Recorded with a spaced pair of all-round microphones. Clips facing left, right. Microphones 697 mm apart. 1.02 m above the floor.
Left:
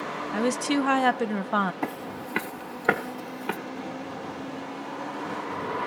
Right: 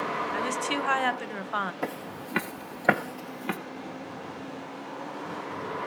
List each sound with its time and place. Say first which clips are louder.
0.3 s a woman speaking: left 10 dB; 65° left (ahead or behind), 0.7 m
1.8 s footsteps: left 2 dB; 10° right (ahead or behind), 1.3 m; by 3.6 s 5° right (ahead or behind), 1.6 m